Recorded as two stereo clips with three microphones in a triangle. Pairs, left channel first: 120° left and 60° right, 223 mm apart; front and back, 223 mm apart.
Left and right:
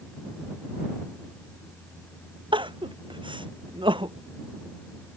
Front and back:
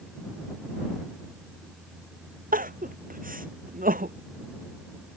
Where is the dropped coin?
I don't hear a dropped coin.